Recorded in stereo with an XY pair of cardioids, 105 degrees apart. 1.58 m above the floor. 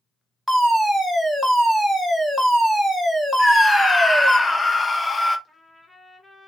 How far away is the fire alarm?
About 1.8 m.